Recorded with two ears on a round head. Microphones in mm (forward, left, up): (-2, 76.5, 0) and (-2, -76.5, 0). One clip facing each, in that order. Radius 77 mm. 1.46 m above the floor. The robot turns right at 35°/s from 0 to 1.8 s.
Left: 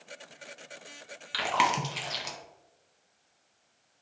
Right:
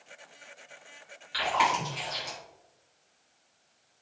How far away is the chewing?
About 0.6 m.